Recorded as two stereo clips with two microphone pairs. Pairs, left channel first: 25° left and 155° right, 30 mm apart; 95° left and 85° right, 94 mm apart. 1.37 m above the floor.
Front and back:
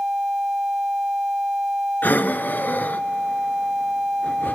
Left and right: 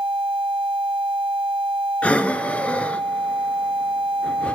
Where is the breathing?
25° left, 0.5 m.